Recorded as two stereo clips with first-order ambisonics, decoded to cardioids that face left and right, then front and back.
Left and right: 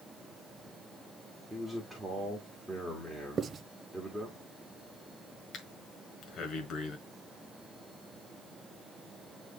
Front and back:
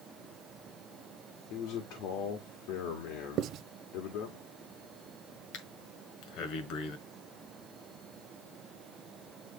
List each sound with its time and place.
1.5 s a man speaking: straight ahead, 1.8 m
3.4 s writing: 150° right, 0.6 m
5.5 s breathing: 30° left, 1.5 m